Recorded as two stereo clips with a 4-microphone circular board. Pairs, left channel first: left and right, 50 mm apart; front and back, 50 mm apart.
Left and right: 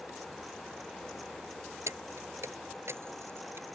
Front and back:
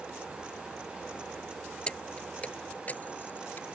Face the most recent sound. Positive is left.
turn(degrees=-50)